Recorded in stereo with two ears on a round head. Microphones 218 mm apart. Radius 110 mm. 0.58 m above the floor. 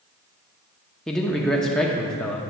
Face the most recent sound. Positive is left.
turn(degrees=0)  # may be behind; listen again after turning